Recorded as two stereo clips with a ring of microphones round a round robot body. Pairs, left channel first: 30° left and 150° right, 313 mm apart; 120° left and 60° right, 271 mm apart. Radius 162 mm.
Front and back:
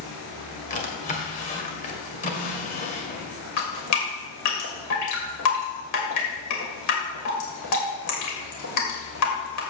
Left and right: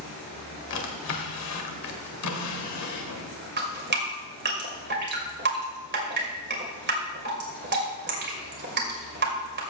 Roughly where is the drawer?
Left.